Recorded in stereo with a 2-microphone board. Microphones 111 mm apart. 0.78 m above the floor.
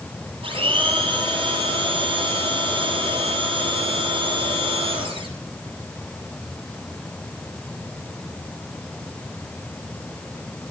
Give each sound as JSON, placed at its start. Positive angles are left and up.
{"t": 0.4, "sound": "a blender", "side_deg": -55, "distance_m": 9.5}